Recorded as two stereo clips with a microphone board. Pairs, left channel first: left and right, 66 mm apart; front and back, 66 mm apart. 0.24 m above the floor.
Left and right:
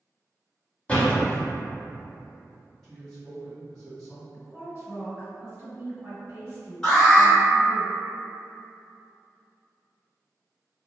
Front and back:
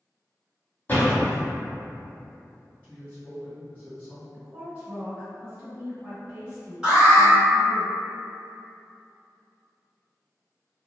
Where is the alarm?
130° left, 1.9 m.